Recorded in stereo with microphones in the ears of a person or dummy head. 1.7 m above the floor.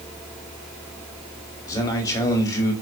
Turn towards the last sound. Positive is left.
turn(degrees=15)  # may be behind; listen again after turning